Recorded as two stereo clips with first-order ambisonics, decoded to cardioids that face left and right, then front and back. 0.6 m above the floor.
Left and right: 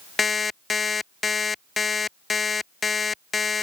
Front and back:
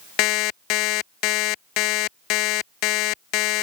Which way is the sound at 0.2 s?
15° left.